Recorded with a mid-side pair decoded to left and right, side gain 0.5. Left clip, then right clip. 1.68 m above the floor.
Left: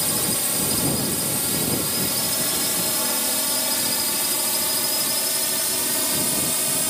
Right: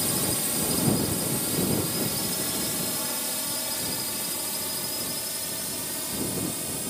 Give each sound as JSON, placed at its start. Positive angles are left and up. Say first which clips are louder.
{"t": 0.0, "sound": "a drone", "louder": "left 4 dB", "azimuth_deg": 30}